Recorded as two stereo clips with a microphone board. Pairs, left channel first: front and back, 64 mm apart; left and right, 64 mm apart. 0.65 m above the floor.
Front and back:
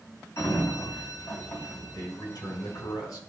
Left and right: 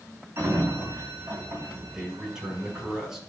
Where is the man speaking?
10° right, 4.5 m.